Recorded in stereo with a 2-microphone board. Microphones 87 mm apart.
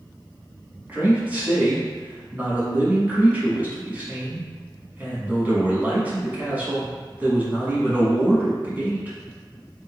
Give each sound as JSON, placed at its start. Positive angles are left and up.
{"t": 0.9, "sound": "a man speaking", "side_deg": -20, "distance_m": 1.0}